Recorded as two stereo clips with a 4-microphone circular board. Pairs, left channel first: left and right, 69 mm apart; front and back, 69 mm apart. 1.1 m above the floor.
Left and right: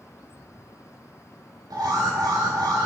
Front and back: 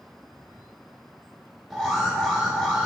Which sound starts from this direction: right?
An alarm, at 1.7 s.